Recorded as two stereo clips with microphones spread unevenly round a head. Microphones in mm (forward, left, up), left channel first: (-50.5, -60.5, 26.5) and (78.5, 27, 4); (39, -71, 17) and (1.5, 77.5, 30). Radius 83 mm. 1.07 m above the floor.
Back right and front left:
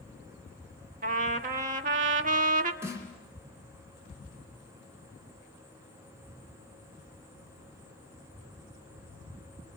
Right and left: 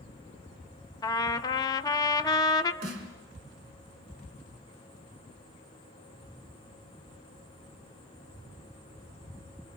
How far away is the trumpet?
About 1.2 m.